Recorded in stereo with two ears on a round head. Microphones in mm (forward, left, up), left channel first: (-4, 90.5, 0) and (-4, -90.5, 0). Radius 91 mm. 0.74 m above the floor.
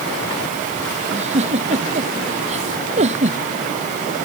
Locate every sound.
1.1 s a giggle: 35° right (ahead or behind)